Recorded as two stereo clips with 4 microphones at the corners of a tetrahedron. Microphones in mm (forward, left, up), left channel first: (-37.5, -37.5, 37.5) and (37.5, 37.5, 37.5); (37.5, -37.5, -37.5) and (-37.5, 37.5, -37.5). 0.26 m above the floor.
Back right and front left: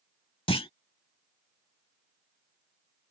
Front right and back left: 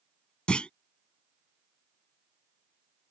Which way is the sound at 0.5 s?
125° right.